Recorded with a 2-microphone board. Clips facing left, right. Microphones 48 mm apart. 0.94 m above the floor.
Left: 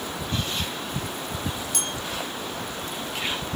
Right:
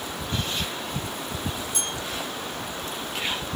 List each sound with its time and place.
1.7 s a bell: 80° left, 2.5 m